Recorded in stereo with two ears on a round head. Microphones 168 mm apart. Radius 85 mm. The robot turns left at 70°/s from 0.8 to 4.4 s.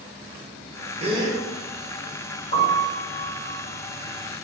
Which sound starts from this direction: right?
A gasp, at 1.0 s.